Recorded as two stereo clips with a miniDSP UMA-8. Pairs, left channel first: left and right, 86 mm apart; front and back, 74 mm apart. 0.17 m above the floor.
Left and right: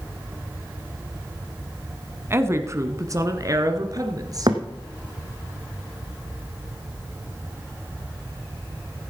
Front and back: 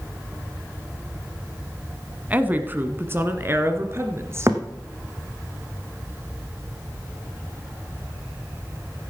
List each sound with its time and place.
2.3 s a woman speaking: 130° right, 1.2 m
4.5 s a thud: 125° right, 1.8 m